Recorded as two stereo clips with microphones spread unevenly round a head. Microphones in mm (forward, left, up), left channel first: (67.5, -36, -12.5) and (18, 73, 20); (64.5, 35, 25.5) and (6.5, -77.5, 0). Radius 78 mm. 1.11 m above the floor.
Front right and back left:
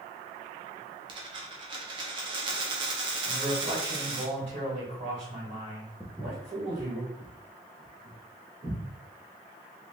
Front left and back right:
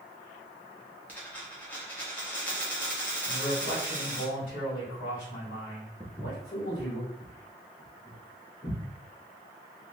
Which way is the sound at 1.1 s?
130° left.